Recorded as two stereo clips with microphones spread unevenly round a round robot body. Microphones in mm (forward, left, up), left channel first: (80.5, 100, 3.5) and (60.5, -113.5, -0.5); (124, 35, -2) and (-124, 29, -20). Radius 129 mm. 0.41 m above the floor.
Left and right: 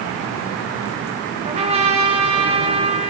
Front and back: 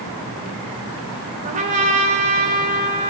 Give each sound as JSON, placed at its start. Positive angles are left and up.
{"t": 1.4, "sound": "a trumpet", "azimuth_deg": -140, "distance_m": 1.3}